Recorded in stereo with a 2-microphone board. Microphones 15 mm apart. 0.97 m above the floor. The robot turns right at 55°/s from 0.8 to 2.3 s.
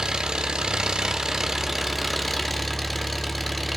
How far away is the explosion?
No explosion in this recording.